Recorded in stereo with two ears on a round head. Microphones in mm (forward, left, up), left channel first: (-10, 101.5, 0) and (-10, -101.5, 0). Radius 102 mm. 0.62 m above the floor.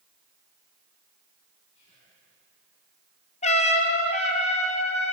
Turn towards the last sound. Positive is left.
turn(degrees=30)  # may be behind; listen again after turning